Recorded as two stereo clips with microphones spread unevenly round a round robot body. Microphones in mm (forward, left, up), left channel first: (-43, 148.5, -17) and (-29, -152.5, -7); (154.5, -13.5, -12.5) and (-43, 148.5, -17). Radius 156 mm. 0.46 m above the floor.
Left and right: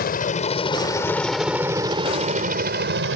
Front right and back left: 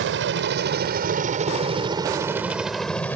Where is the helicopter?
140° left; by 3.2 s 120° right.